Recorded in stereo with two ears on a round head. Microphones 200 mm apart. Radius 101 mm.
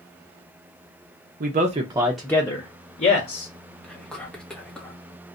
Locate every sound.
1.4 s a man speaking: 45° right (ahead or behind), 0.7 m; by 3.5 s 40° left (ahead or behind), 1.1 m
3.8 s whispering: 5° left (ahead or behind), 0.8 m